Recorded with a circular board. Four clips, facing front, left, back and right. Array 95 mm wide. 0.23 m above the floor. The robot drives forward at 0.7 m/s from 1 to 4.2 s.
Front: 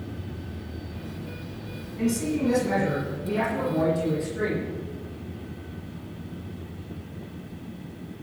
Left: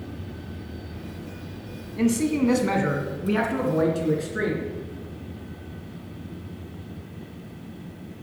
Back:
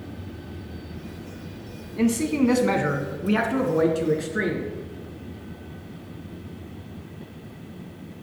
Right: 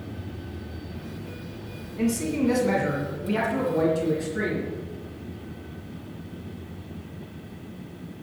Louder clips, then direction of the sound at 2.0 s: Left 3 dB, back 4 dB; 140° left.